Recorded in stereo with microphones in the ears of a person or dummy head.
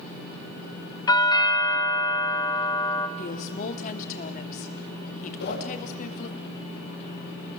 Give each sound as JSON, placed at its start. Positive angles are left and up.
{"t": 1.1, "sound": "a doorbell", "side_deg": 15, "distance_m": 2.0}
{"t": 3.2, "sound": "a woman speaking", "side_deg": 50, "distance_m": 2.5}
{"t": 5.4, "sound": "a whoosh", "side_deg": 70, "distance_m": 6.5}